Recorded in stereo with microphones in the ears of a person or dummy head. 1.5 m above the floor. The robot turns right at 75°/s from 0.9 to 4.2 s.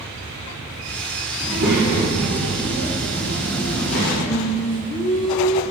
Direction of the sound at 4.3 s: 35° left (ahead or behind).